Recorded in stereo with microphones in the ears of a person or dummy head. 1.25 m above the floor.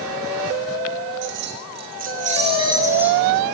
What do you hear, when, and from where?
1.2 s keys jangling: 65° right (ahead or behind), 2.5 m; by 3.2 s 5° right (ahead or behind), 1.7 m